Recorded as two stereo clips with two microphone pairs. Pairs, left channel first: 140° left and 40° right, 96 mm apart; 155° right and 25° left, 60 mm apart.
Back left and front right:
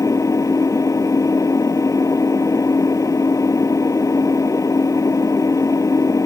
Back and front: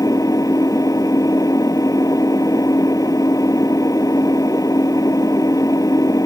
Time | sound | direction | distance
0.0 | an engine running | 165° right | ?